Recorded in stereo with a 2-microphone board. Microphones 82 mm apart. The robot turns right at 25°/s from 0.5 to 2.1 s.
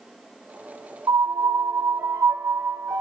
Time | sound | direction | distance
1.1 | a piano | 50° right (ahead or behind) | 1.1 m